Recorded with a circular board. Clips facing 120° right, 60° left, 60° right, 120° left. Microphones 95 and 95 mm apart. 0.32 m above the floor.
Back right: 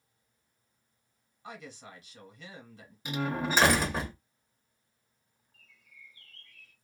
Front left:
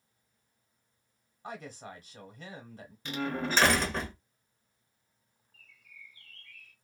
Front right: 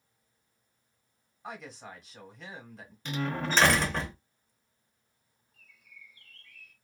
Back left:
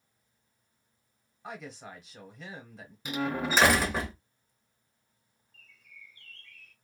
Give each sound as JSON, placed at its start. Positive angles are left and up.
{"t": 1.4, "sound": "a woman speaking", "azimuth_deg": 30, "distance_m": 1.1}
{"t": 3.0, "sound": "a door slam", "azimuth_deg": -175, "distance_m": 0.8}
{"t": 5.5, "sound": "a bird", "azimuth_deg": -130, "distance_m": 1.1}